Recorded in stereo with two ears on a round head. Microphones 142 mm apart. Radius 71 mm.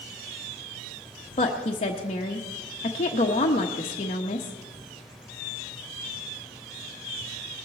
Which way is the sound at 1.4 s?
35° left (ahead or behind).